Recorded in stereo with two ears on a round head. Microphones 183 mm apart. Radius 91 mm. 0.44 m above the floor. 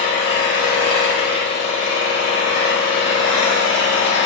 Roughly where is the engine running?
Left.